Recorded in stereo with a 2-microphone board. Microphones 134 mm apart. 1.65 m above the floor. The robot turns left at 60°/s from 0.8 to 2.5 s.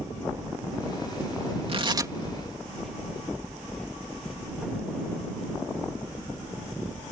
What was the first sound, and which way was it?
Tearing paper, 45° right (ahead or behind).